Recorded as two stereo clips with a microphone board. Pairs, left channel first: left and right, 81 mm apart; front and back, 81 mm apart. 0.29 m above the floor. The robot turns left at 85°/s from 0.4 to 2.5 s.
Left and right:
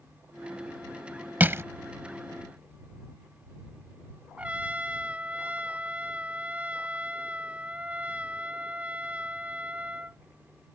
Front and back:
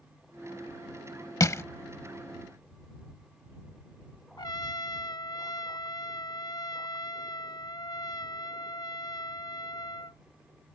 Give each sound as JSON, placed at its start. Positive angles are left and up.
{"t": 1.4, "sound": "crushing", "azimuth_deg": -30}
{"t": 4.4, "sound": "a trumpet", "azimuth_deg": -20}